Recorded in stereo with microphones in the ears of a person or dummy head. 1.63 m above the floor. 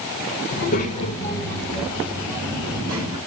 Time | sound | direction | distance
0.5 | a child speaking | 55° left (ahead or behind) | 1.5 m